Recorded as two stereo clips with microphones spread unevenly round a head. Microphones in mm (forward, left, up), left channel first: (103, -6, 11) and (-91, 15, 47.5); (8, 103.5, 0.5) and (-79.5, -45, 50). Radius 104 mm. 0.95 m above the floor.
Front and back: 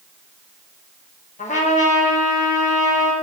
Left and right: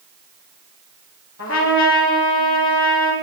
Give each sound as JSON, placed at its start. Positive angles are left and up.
{"t": 1.4, "sound": "a trumpet", "azimuth_deg": 50, "distance_m": 4.0}